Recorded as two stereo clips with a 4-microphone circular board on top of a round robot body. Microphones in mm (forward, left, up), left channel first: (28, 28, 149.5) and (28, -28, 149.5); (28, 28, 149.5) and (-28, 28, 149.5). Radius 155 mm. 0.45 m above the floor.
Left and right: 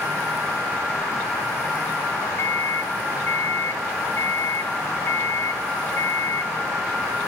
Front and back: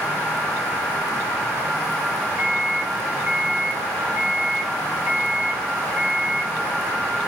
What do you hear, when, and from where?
2.4 s a microwave: 110° left, 2.5 m